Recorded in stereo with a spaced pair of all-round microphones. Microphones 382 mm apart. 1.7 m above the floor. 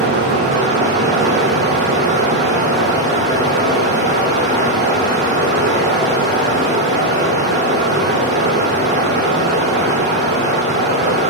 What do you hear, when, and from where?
0.0 s running water: 25° right (ahead or behind), 1.4 m